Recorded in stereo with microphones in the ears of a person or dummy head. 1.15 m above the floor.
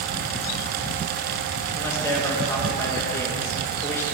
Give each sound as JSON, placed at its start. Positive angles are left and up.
{"t": 1.7, "sound": "a man speaking", "side_deg": 15, "distance_m": 1.4}